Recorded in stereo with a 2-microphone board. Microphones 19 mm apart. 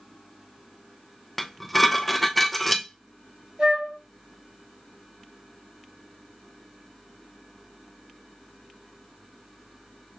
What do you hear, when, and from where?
1.4 s dishes clattering: 5° left (ahead or behind), 0.5 m
3.6 s a flute: 60° right (ahead or behind), 2 m